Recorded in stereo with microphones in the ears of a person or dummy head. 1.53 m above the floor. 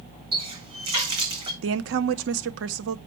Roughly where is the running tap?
Right.